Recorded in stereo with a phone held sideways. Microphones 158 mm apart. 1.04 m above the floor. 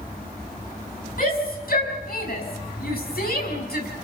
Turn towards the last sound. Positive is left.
turn(degrees=80)